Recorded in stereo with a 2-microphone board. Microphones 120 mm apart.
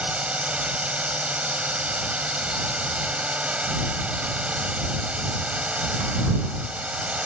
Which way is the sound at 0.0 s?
10° right (ahead or behind).